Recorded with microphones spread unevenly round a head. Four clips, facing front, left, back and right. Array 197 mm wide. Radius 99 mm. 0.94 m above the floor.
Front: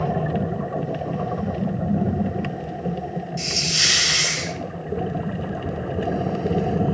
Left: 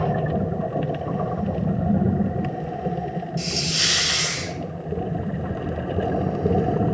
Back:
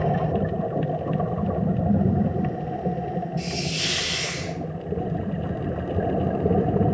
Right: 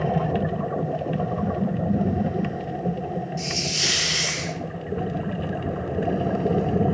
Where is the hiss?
40° left, 1.9 m.